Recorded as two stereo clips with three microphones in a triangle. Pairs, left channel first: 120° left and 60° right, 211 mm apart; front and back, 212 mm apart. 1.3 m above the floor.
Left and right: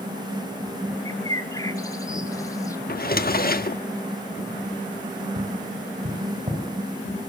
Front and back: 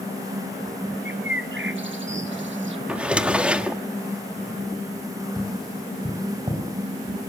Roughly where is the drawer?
Left.